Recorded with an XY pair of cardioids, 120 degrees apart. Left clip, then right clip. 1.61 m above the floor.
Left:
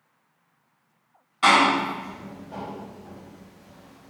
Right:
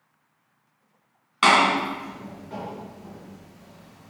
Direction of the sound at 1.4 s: 60° right.